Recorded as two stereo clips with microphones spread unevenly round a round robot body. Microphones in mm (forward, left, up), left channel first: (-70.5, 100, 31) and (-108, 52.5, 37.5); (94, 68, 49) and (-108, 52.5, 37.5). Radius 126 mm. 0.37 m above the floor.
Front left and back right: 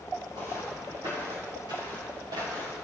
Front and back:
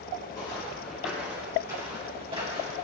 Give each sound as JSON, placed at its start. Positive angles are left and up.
{"t": 0.3, "sound": "footsteps", "azimuth_deg": -70, "distance_m": 3.0}